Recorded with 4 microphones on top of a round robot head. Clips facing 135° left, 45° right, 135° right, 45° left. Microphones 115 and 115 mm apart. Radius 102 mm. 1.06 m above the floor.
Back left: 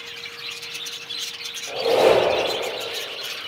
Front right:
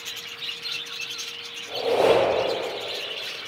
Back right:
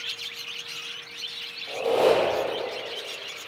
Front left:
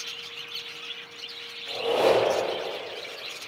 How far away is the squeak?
About 0.6 m.